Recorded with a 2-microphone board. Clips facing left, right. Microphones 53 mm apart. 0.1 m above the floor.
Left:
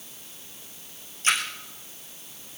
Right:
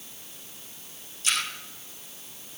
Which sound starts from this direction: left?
A splash, at 1.2 s.